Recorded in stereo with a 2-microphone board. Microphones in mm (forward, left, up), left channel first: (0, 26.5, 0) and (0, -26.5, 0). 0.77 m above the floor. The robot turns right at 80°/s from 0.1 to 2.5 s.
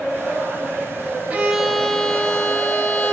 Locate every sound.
1.3 s a violin: 30° right, 0.9 m; by 3.1 s 65° left, 0.9 m